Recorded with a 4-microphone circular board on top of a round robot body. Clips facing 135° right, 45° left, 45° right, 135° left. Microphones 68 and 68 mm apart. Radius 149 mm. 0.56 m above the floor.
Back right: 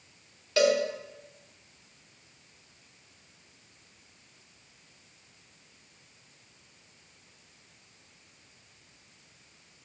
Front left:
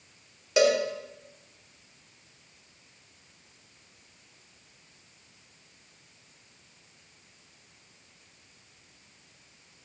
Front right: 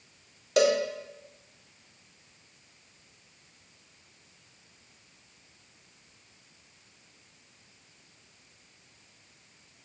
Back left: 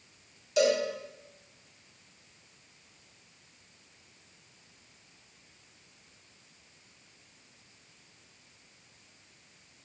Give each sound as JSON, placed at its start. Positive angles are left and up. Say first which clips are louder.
{"t": 0.6, "sound": "a cowbell", "louder": "front left 1 dB, front right 2 dB", "azimuth_deg": -25, "distance_m": 1.2}